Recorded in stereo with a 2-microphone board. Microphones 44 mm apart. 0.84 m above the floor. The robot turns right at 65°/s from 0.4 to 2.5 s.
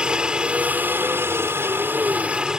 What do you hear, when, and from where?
0.0 s a helicopter: 155° right; by 2.6 s 20° right